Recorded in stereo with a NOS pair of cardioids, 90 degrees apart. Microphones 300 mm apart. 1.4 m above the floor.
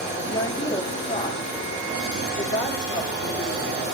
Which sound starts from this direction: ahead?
A woman speaking, at 0.3 s.